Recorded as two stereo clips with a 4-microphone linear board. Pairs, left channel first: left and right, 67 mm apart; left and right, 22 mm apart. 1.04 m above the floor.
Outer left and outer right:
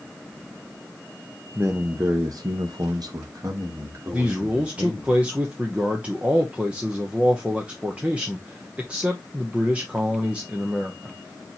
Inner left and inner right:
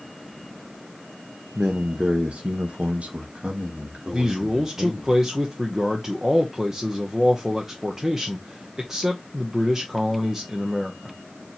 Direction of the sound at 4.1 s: 20° right (ahead or behind).